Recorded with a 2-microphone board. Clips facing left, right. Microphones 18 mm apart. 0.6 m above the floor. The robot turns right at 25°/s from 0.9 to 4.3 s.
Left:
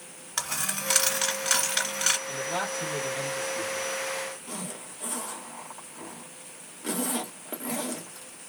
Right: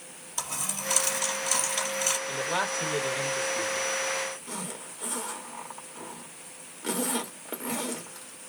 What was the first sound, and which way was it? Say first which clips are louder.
A dropped coin: left 3 dB; 85° left.